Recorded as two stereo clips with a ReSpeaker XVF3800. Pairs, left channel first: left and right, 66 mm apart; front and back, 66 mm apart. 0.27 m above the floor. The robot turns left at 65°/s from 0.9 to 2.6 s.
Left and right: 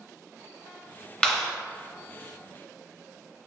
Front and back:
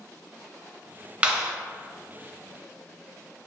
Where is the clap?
145° left, 0.8 m; by 1.5 s 125° left, 0.8 m.